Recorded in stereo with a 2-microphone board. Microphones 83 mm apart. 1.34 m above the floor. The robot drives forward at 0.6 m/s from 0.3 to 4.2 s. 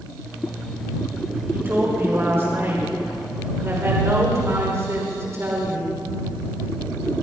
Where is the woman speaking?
30° right (ahead or behind), 7 m; by 5.9 s 35° right (ahead or behind), 5.5 m.